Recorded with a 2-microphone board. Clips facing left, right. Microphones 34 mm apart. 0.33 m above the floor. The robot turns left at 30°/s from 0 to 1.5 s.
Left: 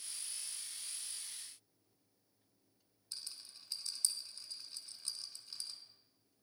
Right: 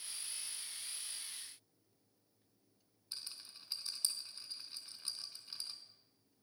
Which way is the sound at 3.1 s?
20° right (ahead or behind).